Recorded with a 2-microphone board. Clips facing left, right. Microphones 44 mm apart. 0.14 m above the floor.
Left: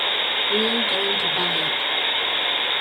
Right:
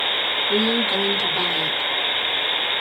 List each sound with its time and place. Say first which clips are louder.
0.5 s a woman speaking: right 2 dB; 15° left (ahead or behind), 1.5 m